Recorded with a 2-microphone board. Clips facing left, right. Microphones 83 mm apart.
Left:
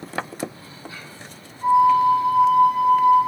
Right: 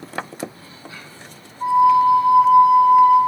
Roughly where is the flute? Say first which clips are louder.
Right 2 dB; right.